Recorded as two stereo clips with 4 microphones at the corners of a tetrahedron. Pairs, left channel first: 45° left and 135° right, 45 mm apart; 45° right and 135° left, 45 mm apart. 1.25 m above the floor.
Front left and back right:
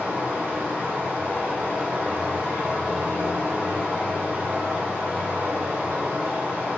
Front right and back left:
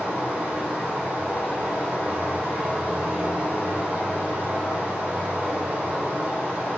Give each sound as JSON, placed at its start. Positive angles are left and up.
{"t": 0.0, "sound": "running water", "azimuth_deg": 160, "distance_m": 1.3}